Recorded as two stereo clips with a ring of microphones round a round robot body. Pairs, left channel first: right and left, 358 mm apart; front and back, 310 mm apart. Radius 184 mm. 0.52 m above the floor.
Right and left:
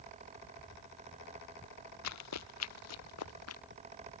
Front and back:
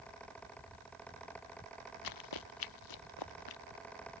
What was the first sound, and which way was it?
Running footsteps, 40° right.